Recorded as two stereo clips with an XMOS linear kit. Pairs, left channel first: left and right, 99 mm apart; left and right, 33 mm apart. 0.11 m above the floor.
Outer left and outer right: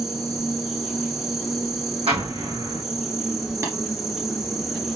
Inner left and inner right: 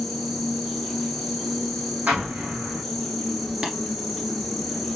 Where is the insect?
Centre (ahead or behind), 0.8 m.